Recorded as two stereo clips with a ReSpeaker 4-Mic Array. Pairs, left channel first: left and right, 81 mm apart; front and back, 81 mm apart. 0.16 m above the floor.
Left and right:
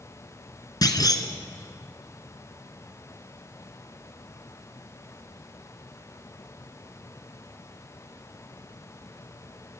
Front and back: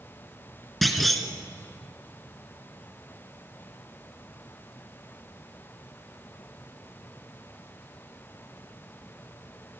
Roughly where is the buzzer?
I don't hear a buzzer.